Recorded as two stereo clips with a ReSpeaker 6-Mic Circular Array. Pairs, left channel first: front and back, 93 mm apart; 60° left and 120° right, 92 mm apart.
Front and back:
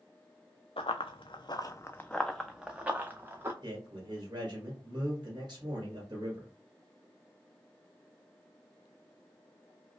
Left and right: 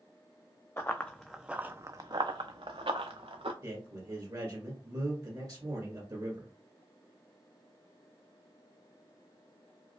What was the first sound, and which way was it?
Running footsteps, 5° right.